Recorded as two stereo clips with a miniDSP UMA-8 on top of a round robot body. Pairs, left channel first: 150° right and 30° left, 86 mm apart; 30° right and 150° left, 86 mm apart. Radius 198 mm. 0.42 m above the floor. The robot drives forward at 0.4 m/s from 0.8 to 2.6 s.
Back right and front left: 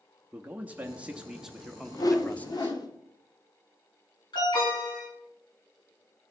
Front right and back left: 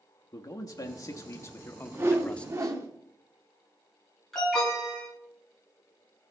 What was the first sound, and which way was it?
A man speaking, 35° right.